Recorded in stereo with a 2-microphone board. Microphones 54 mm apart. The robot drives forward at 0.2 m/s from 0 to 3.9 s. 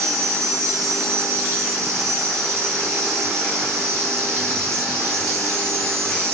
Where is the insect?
70° right (ahead or behind), 2.5 m; by 6.3 s 55° right (ahead or behind), 3 m.